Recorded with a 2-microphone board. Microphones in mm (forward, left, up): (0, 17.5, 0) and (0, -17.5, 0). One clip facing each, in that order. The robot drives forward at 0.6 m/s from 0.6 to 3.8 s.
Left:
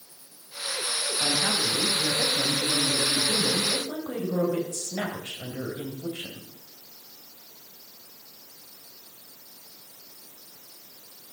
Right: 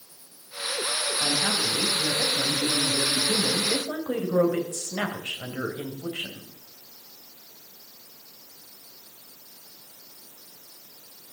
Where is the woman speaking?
30° right (ahead or behind), 3.5 m; by 6.4 s 45° right (ahead or behind), 2.5 m.